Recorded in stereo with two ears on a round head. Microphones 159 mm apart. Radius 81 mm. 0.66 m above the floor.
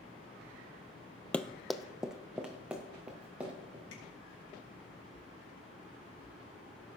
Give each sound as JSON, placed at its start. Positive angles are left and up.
{"t": 1.3, "sound": "running footsteps", "side_deg": 5, "distance_m": 0.6}
{"t": 3.9, "sound": "tapping", "side_deg": 80, "distance_m": 5.0}